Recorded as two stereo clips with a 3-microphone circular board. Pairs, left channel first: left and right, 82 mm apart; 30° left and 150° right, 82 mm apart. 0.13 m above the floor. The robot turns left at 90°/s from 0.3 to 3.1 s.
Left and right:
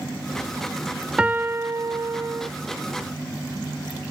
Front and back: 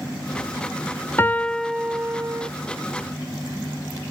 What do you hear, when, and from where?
1.2 s a piano: 20° right, 0.6 m; by 2.5 s 135° right, 0.6 m